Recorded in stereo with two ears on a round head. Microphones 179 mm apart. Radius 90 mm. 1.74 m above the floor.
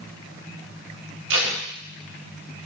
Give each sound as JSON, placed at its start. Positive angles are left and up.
{"t": 1.3, "sound": "tape being pulled", "side_deg": -65, "distance_m": 0.9}